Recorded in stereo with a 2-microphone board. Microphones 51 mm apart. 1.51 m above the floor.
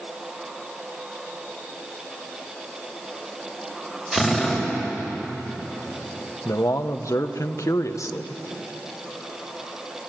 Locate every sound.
4.1 s a drill: 10° right (ahead or behind), 6 m
6.5 s a man speaking: 85° left, 1.2 m